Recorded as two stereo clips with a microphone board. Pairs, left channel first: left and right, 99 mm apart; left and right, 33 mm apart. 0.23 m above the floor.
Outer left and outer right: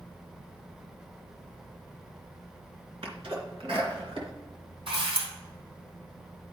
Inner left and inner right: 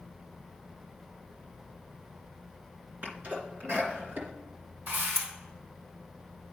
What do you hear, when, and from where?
3.0 s a sneeze: 65° right (ahead or behind), 3 m
4.9 s a camera shutter: 65° right (ahead or behind), 2.5 m